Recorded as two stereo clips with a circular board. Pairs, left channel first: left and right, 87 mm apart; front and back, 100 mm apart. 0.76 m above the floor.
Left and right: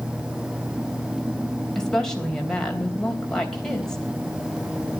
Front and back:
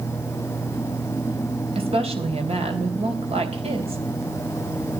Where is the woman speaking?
175° left, 3.5 m.